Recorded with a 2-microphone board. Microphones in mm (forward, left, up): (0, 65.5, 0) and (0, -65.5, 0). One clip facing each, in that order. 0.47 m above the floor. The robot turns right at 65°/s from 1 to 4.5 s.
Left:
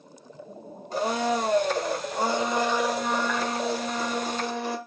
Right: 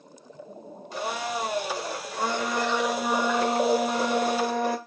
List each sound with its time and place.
0.9 s a blender: 55° left, 1.8 m; by 4.8 s 75° right, 1.8 m